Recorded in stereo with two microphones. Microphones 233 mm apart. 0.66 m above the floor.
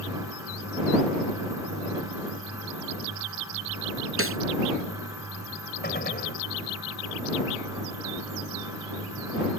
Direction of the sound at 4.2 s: 70° right (ahead or behind).